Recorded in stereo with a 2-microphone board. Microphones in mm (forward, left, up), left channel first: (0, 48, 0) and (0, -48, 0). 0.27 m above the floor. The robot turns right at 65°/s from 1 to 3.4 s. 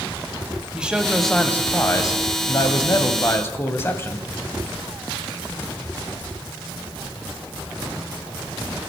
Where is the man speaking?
15° right, 1.3 m; by 4.3 s 145° left, 1.3 m.